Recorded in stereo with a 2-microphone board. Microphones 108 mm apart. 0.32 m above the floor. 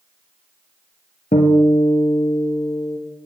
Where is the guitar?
85° left, 1.0 m.